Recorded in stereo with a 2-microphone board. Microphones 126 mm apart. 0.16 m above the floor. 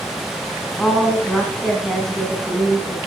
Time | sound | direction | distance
0.8 | a woman speaking | 5° left (ahead or behind) | 1.4 m